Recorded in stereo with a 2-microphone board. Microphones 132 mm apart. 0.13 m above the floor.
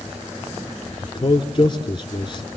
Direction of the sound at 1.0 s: 40° left (ahead or behind).